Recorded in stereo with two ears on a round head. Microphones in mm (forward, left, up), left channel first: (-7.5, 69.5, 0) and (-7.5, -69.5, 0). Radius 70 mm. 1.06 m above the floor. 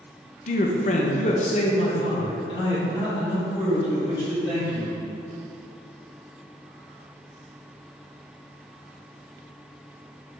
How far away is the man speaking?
About 0.9 m.